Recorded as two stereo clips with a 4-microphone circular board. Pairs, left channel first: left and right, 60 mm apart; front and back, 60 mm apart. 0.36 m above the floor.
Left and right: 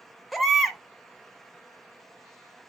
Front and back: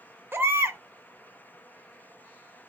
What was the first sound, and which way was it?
A baby crying, straight behind.